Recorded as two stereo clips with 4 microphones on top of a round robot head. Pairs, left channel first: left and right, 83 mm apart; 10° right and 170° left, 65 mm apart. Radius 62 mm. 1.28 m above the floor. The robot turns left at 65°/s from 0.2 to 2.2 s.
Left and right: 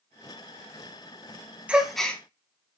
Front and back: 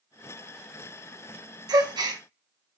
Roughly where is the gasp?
Behind.